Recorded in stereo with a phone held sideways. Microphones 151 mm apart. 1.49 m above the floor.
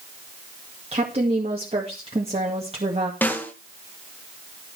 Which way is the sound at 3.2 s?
10° left (ahead or behind).